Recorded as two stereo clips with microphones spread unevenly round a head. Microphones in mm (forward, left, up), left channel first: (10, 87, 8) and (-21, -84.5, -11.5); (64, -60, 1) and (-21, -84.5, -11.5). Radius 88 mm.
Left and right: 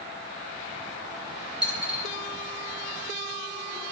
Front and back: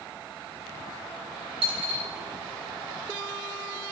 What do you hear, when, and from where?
1.6 s a dropped coin: 175° left, 3 m